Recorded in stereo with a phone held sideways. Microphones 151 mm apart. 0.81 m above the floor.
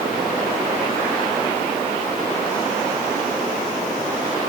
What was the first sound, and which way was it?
Only background noise.